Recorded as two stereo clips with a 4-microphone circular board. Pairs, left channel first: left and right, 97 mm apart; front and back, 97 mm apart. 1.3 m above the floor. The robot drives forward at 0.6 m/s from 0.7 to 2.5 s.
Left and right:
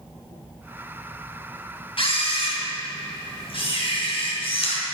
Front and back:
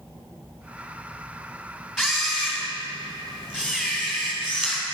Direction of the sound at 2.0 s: 95° left.